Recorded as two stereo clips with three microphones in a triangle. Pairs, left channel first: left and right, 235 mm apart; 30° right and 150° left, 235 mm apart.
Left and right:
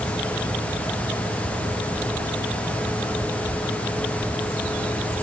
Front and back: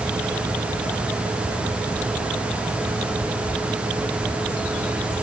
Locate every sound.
Only background noise.